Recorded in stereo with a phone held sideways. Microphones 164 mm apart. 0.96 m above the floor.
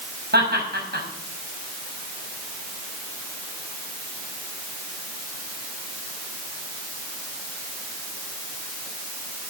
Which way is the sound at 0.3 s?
85° right.